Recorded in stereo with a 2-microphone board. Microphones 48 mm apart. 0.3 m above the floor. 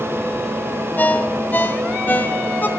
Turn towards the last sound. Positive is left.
turn(degrees=40)  # may be behind; listen again after turning